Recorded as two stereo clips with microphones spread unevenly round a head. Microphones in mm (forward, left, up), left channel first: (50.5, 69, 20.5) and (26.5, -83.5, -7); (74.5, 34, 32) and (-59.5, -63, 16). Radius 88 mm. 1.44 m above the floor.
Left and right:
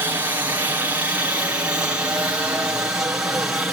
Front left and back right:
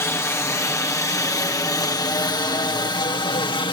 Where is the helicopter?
40° right; by 3.7 s 20° right.